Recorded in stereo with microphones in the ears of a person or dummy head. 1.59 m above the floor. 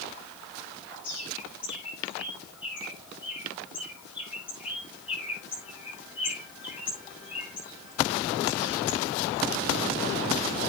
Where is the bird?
10° right (ahead or behind), 9 m.